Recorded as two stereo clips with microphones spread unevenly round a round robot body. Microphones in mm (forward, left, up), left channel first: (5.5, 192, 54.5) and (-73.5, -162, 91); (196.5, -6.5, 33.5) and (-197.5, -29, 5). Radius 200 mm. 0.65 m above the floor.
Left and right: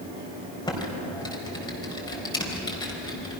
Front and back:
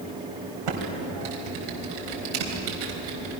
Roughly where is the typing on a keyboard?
Behind left.